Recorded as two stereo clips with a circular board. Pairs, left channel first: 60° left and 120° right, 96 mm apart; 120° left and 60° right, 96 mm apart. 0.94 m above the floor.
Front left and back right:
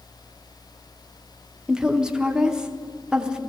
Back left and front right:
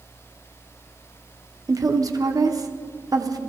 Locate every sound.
1.7 s a woman speaking: 45° right, 0.7 m